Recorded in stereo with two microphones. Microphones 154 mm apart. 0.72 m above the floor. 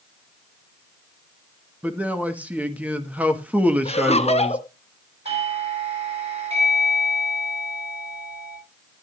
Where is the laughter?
45° left (ahead or behind), 1.0 m.